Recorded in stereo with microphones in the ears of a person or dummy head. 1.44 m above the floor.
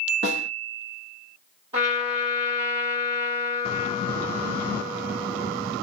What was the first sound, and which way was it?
A snare drum, 45° right (ahead or behind).